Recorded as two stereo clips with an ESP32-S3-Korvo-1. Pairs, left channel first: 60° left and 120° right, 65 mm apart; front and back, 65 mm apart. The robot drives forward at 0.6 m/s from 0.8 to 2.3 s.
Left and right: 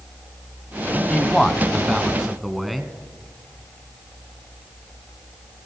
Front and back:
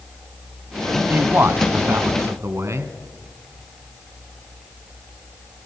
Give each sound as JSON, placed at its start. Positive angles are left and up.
{"t": 1.1, "sound": "a man speaking", "azimuth_deg": 135, "distance_m": 1.6}